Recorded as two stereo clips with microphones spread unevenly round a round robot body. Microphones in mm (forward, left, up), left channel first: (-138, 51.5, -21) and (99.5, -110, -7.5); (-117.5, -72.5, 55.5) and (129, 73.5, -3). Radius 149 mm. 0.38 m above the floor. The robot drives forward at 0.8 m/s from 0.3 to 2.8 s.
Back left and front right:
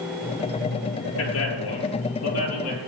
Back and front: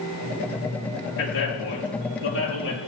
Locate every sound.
1.2 s a man speaking: 170° right, 6 m; by 2.8 s 175° right, 7 m